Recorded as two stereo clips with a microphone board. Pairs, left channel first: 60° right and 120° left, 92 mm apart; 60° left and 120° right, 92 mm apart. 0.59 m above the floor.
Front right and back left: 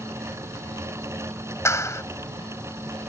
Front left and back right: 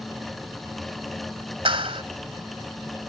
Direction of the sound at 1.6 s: 115° right.